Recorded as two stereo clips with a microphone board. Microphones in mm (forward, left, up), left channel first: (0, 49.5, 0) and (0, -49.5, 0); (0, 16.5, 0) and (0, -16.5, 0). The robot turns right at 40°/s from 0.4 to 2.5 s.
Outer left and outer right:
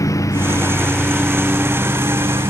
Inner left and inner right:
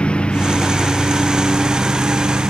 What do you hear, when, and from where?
0.0 s a lawn mower: 145° left; by 2.5 s 130° right